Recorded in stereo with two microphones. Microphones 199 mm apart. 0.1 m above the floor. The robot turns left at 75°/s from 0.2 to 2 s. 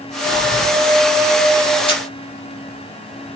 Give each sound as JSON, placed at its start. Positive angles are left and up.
{"t": 0.2, "sound": "breathing", "azimuth_deg": 135, "distance_m": 3.5}
{"t": 1.9, "sound": "a camera shutter", "side_deg": 30, "distance_m": 2.5}